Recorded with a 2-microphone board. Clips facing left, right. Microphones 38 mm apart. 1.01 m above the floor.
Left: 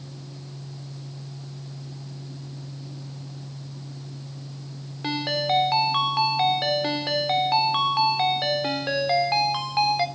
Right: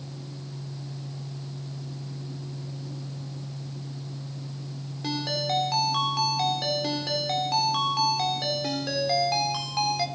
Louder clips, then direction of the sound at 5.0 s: Left 4 dB; 30° left (ahead or behind).